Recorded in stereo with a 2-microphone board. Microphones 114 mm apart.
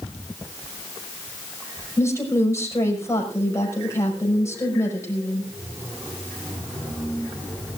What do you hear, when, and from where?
2.0 s a woman speaking: 25° left (ahead or behind), 6 m